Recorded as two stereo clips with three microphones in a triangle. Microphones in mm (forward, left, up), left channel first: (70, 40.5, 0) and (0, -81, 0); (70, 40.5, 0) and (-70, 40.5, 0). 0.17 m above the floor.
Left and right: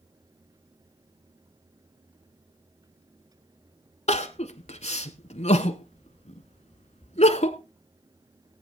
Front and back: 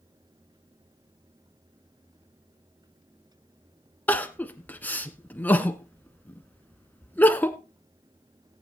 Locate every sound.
4.1 s crying: 75° left, 0.9 m